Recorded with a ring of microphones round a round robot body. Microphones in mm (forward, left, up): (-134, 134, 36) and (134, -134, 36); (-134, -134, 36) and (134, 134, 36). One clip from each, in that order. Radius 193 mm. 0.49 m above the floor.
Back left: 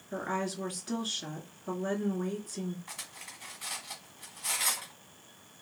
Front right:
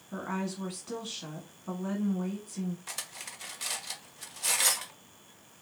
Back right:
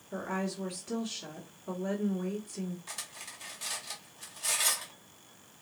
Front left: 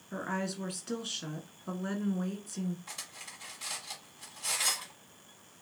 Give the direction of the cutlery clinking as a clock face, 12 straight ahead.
2 o'clock.